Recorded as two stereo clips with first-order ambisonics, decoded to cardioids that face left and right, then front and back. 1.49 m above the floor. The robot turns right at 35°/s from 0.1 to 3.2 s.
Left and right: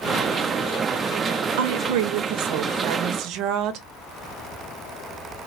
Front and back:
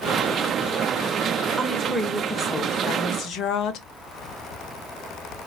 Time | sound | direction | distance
1.6 | a woman speaking | 105° right | 0.6 m